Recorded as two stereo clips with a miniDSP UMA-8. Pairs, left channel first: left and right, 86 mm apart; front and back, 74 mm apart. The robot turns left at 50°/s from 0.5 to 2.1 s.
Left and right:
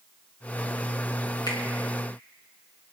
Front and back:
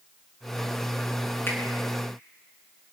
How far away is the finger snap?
About 4.5 m.